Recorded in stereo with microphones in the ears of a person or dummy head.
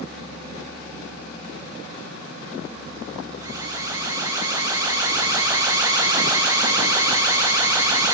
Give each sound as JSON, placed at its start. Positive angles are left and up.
{"t": 3.4, "sound": "an alarm", "side_deg": -25, "distance_m": 6.5}